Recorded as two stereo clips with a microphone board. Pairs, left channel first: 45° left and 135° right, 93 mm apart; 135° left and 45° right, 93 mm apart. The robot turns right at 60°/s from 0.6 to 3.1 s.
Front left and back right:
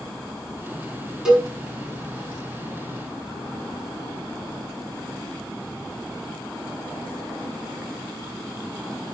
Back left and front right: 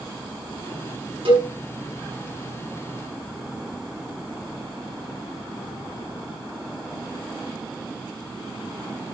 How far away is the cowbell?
About 6.5 m.